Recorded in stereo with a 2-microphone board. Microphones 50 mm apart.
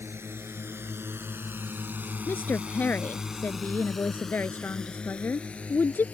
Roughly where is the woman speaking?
Left.